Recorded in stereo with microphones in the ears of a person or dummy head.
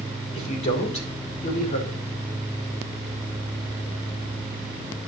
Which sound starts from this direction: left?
A man speaking, at 0.3 s.